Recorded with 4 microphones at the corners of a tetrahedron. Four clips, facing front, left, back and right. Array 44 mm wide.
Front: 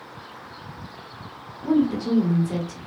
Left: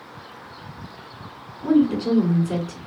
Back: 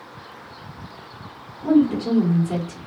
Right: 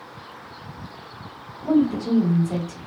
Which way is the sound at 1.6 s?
120° left.